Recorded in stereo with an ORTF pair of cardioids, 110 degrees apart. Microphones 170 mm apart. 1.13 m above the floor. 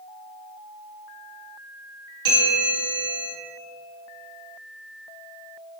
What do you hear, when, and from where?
2.2 s a bell: 25° right, 1.2 m